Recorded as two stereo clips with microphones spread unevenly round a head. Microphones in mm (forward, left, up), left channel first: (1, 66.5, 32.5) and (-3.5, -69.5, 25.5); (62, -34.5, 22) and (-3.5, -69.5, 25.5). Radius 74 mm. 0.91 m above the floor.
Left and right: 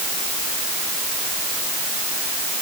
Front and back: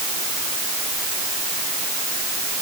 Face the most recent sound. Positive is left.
No sound to turn to.